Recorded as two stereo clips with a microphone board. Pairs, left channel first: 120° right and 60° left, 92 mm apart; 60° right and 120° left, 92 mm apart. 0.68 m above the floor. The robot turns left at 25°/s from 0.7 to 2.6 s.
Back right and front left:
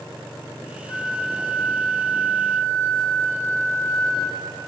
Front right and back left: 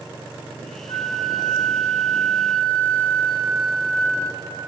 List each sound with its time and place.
0.9 s a flute: 95° right, 1.5 m; by 4.5 s 135° right, 1.5 m